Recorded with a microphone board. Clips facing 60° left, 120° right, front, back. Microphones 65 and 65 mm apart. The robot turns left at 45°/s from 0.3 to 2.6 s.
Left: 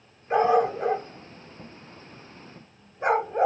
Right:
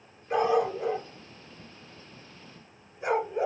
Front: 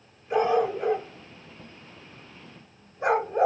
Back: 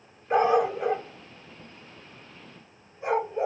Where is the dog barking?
120° left, 1.1 m; by 3.5 s 15° left, 1.1 m.